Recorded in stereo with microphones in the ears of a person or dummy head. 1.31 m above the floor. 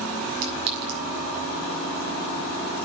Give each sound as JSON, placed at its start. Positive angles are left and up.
{"t": 0.4, "sound": "a clink", "side_deg": -80, "distance_m": 7.5}